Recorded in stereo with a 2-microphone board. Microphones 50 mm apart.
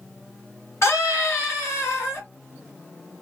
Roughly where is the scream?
Left.